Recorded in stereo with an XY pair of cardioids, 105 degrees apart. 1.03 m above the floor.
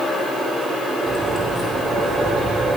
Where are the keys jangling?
20° left, 5.5 m.